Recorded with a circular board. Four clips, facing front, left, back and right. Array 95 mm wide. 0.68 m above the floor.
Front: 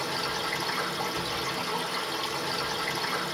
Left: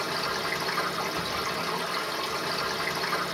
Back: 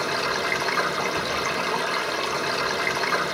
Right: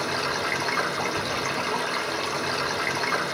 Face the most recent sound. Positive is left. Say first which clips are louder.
# right 3 dB, back 6 dB
turn(degrees=-145)